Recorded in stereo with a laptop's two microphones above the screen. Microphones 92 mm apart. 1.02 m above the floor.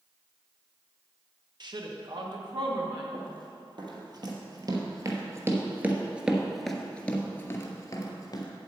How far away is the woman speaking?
About 1.0 m.